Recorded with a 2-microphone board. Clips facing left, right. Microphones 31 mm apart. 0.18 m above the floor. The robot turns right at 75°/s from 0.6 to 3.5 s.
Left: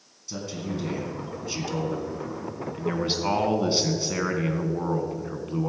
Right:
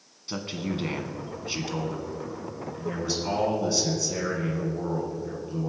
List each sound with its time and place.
0.3 s a man speaking: 100° right, 1.7 m; by 5.7 s 115° left, 1.7 m